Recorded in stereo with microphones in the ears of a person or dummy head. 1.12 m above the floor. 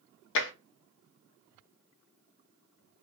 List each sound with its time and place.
0.3 s tapping: 65° left (ahead or behind), 0.6 m